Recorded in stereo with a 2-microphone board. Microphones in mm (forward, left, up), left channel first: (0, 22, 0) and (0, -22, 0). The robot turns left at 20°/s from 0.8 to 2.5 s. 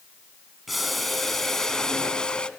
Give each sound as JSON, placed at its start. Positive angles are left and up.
{"t": 0.7, "sound": "boiling", "azimuth_deg": -175, "distance_m": 1.1}